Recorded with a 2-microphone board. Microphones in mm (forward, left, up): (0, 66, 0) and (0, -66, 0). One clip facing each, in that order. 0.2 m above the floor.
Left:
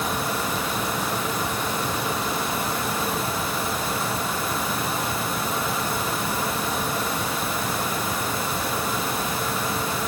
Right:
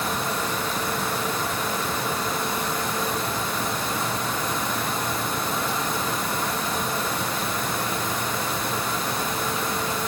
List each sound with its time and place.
Only background noise.